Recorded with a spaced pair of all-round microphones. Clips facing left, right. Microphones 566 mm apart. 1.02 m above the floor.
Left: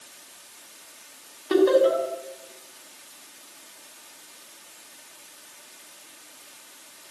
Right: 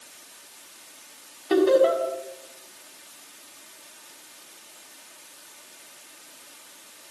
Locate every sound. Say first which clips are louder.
1.5 s laughter: even; 5° right (ahead or behind), 6 m